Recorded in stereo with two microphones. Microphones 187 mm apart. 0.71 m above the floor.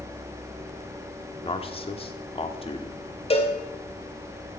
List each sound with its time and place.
1.4 s a man speaking: 30° left (ahead or behind), 1.3 m
3.3 s a cowbell: 30° left (ahead or behind), 2.5 m